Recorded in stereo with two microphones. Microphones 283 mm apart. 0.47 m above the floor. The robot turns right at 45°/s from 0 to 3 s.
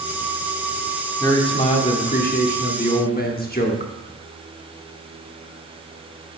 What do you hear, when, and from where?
1.2 s a man speaking: 20° left, 0.8 m; by 3.9 s 100° left, 0.8 m